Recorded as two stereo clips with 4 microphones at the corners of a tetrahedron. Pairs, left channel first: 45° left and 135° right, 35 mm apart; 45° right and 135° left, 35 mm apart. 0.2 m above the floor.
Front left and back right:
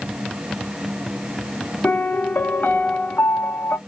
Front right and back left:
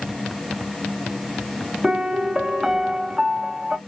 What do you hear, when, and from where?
1.8 s a piano: 65° left, 0.6 m